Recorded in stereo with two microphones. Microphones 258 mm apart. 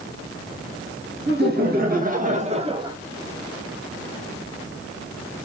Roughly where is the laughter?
Right.